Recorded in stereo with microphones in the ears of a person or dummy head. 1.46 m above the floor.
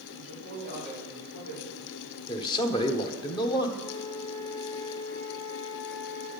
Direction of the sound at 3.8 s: 30° left (ahead or behind).